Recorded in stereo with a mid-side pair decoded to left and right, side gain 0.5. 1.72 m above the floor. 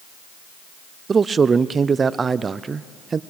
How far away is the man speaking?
About 0.6 m.